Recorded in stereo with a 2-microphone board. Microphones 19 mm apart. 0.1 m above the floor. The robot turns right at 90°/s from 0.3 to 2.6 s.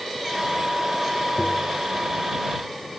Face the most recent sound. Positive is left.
turn(degrees=165)